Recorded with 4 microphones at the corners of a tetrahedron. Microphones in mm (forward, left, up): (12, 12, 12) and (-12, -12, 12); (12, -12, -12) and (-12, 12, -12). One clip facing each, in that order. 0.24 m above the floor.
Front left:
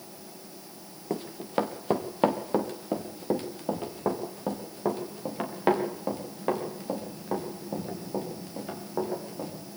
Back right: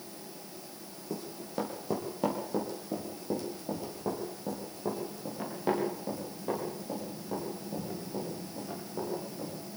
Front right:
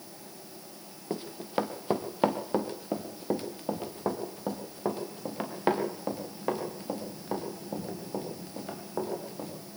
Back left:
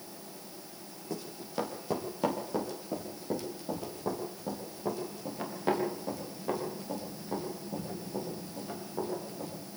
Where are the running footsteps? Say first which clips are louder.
Front left 8 dB, front right 5 dB; 10° left, 2.5 m; by 9.5 s straight ahead, 9 m.